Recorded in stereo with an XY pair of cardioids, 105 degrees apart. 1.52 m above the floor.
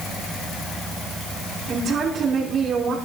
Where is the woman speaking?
65° right, 5.5 m.